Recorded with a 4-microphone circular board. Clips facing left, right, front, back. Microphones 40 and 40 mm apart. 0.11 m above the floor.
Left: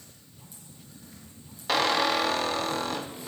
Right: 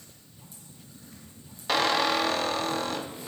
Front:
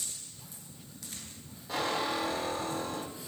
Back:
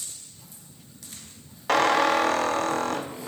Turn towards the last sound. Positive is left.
turn(degrees=180)